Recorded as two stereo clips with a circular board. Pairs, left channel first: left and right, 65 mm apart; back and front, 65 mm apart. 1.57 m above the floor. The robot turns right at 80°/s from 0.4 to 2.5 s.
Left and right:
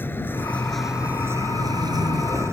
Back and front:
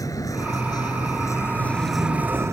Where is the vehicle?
150° left; by 2.5 s 45° right.